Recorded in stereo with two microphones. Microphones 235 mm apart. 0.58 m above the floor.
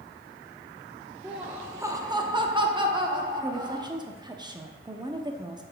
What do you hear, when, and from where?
1.2 s laughter: 5° right (ahead or behind), 0.8 m; by 3.9 s 15° right (ahead or behind), 1.5 m
3.4 s a woman speaking: 20° right (ahead or behind), 0.6 m